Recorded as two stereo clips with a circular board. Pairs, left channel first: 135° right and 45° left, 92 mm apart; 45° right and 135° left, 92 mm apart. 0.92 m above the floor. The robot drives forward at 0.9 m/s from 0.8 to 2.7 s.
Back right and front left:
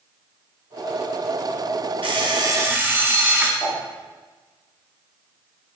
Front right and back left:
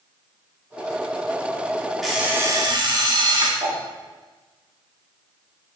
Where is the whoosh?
125° left, 1.5 m.